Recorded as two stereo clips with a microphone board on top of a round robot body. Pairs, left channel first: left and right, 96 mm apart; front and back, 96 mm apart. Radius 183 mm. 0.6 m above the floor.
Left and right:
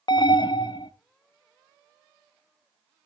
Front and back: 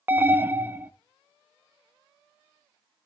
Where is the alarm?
115° left, 0.7 m.